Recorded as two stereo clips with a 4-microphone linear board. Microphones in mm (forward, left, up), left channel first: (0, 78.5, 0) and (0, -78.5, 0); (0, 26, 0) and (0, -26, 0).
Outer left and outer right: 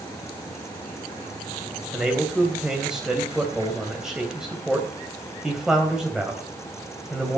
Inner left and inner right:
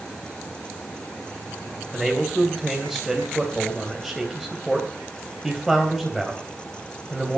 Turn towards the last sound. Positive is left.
turn(degrees=-5)  # may be behind; listen again after turning